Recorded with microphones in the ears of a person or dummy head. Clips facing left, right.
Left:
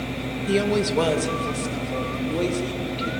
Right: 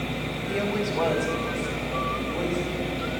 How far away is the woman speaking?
About 1.5 m.